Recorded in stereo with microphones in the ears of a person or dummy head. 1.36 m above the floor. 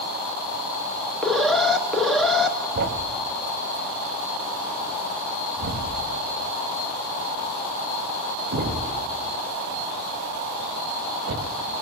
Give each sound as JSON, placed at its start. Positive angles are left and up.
{"t": 1.2, "sound": "an alarm", "side_deg": 0, "distance_m": 1.0}
{"t": 2.8, "sound": "a thud", "side_deg": -45, "distance_m": 1.0}